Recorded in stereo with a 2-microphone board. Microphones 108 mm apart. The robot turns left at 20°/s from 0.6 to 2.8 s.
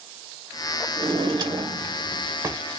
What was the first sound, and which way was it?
A drawer, 125° right.